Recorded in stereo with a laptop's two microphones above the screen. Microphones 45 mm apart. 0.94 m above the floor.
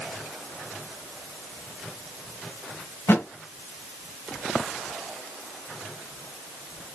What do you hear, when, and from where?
3.1 s a thud: 65° left (ahead or behind), 1.6 m